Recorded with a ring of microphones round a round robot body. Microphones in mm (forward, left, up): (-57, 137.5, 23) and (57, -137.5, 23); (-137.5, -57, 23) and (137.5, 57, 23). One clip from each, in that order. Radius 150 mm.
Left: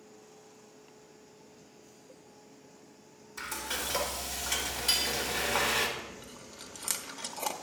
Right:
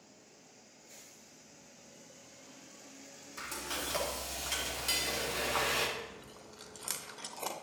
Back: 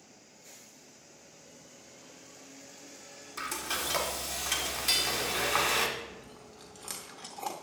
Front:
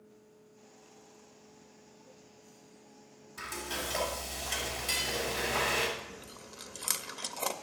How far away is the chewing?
About 0.6 m.